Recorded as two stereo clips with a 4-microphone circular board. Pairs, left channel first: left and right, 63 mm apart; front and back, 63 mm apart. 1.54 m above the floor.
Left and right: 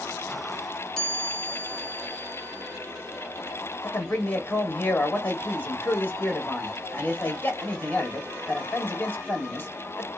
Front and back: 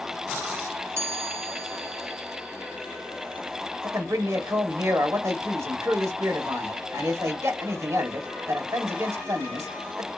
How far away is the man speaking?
About 1.3 m.